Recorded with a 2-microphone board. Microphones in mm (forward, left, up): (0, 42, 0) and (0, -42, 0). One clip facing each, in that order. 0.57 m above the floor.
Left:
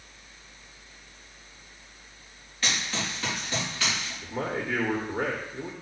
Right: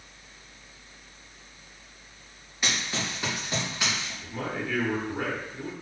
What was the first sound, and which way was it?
Running footsteps, 15° right (ahead or behind).